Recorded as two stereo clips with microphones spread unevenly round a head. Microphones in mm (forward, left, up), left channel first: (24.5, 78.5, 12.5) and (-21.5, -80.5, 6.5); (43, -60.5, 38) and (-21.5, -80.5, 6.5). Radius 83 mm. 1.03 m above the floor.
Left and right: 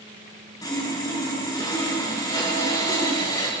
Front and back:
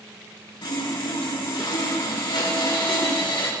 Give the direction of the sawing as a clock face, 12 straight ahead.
12 o'clock.